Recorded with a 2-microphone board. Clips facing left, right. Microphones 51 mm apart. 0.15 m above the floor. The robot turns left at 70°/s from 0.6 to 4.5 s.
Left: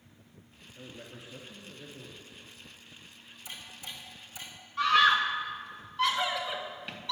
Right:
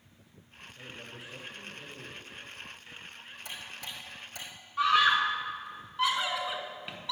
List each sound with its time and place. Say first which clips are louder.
0.8 s a man speaking: right 1 dB; 125° left, 2 m; by 2.3 s 15° left, 2 m
3.5 s ticking: right 2 dB; 55° right (ahead or behind), 4.5 m; by 4.5 s 50° right (ahead or behind), 4.5 m
4.8 s a scream: left 1 dB; 5° right (ahead or behind), 1.7 m